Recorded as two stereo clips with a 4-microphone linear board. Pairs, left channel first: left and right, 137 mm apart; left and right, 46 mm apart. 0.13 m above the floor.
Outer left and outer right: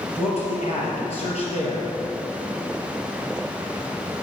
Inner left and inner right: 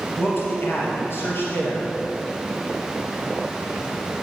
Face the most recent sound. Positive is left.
turn(degrees=50)  # may be behind; listen again after turning